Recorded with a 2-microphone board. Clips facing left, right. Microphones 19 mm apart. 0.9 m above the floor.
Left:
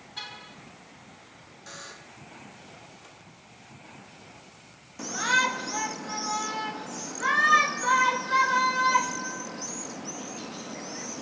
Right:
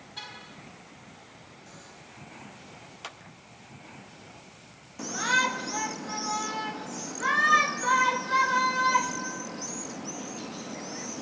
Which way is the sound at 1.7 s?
50° left (ahead or behind).